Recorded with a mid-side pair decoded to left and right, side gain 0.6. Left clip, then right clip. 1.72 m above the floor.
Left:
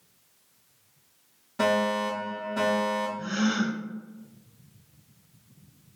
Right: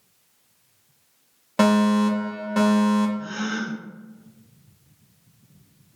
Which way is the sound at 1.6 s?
70° right.